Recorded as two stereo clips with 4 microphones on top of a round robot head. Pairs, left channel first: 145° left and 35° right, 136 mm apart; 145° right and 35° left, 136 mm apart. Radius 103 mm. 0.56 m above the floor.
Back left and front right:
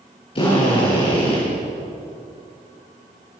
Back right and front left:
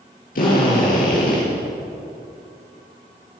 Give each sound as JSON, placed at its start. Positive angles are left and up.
{"t": 0.3, "sound": "a drill", "azimuth_deg": -160, "distance_m": 10.0}